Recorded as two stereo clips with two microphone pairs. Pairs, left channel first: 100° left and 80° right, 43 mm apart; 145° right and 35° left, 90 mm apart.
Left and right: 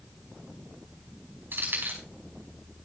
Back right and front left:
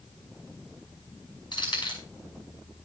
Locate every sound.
1.5 s keys jangling: 115° right, 5.5 m